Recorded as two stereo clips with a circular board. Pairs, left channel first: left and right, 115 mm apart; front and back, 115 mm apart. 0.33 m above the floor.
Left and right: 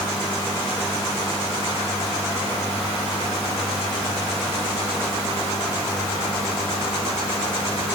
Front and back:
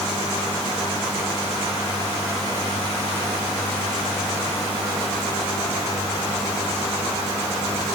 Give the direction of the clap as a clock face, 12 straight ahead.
I don't hear a clap.